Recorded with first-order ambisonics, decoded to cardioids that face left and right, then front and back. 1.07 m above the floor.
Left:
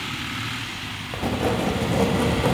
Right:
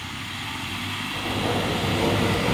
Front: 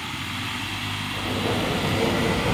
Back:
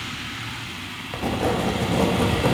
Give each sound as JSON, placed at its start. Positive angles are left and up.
{"t": 1.1, "sound": "writing", "azimuth_deg": 135, "distance_m": 1.0}